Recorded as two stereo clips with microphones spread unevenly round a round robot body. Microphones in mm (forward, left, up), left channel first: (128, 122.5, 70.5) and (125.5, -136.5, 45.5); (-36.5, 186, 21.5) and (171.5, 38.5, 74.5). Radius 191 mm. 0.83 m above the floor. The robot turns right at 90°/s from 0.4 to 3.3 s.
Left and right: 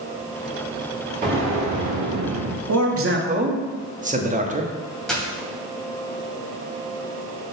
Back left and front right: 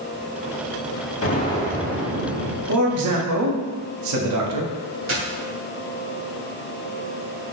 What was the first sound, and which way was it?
An explosion, 160° right.